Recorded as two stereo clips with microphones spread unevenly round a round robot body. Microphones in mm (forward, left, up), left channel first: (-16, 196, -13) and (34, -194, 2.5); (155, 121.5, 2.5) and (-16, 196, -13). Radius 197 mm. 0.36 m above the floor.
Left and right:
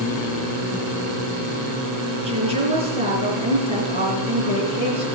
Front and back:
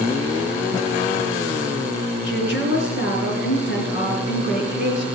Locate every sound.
2.2 s a woman speaking: 5° right, 4 m